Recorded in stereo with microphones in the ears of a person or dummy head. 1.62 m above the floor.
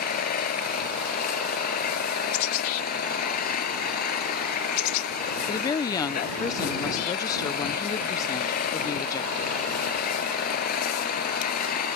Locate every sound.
0.0 s an engine running: 55° left (ahead or behind)
5.5 s a woman speaking: 20° left (ahead or behind)